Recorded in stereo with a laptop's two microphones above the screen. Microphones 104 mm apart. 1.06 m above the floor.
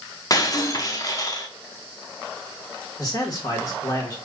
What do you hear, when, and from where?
0.3 s breaking glass: 35° left (ahead or behind), 0.7 m
3.0 s a man speaking: 35° left (ahead or behind), 1.5 m